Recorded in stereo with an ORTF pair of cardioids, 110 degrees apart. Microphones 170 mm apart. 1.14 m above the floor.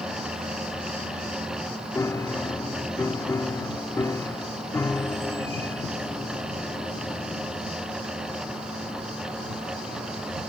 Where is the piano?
15° left.